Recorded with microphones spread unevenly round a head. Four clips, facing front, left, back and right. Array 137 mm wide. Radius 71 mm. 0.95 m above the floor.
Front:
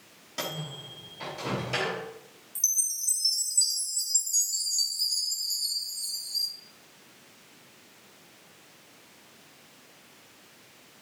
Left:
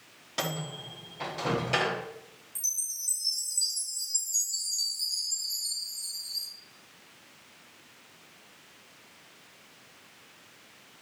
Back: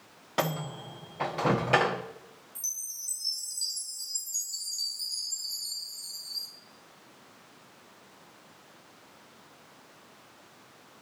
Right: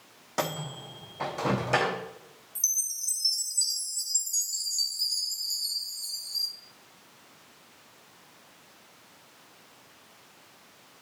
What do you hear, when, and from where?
0.4 s a microwave: 155° right, 1.0 m
2.5 s a chime: 10° right, 2 m